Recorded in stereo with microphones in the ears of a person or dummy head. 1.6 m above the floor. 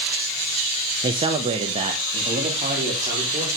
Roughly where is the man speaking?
Right.